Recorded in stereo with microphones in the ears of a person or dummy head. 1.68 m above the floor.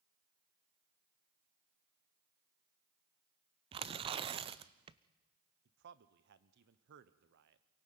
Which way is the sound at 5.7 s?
60° right (ahead or behind).